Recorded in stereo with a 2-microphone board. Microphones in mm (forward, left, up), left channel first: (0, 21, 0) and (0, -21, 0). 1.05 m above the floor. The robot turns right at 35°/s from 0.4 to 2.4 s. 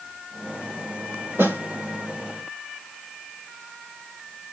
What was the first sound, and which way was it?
A snare drum, 70° right (ahead or behind).